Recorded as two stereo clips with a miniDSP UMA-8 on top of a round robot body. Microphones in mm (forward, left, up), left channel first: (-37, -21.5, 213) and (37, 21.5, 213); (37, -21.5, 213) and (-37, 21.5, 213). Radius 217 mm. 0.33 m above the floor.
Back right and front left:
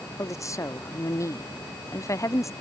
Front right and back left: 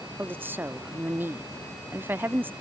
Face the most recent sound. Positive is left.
turn(degrees=-160)